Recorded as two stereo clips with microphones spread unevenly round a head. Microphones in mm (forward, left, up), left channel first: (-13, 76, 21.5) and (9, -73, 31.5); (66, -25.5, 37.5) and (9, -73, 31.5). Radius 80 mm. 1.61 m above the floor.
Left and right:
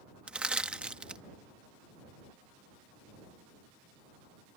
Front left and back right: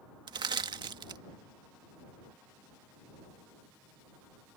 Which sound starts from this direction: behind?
Crushing, at 0.3 s.